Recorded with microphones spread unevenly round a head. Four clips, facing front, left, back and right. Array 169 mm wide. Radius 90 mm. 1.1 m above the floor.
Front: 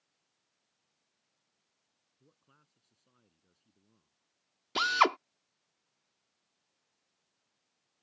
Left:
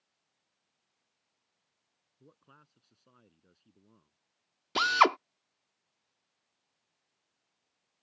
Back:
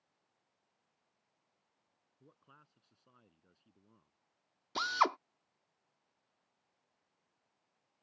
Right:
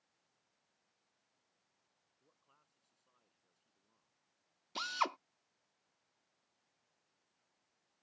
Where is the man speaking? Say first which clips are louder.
Left 15 dB, back 5 dB; 100° left.